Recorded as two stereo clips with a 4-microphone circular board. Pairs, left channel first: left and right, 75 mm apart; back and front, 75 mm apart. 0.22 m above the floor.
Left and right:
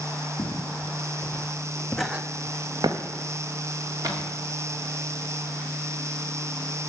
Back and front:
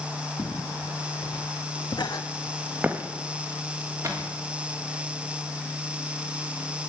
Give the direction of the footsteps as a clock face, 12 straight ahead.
7 o'clock.